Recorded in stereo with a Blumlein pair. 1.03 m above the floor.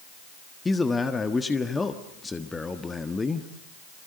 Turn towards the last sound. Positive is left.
turn(degrees=10)